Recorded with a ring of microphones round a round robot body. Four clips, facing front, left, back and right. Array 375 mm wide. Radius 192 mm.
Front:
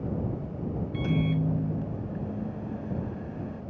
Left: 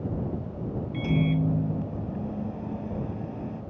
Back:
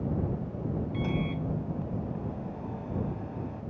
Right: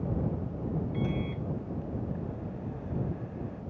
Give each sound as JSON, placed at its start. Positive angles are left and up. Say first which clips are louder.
{"t": 0.9, "sound": "a microwave", "louder": "left 7 dB, front 7 dB", "azimuth_deg": 60}